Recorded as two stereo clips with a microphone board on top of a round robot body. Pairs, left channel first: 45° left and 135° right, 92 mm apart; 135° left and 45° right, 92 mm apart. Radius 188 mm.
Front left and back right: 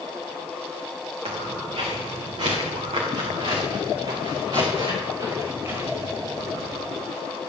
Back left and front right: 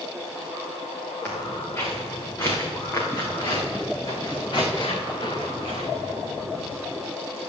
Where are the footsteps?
155° right, 4.5 m; by 6.8 s 160° left, 3 m.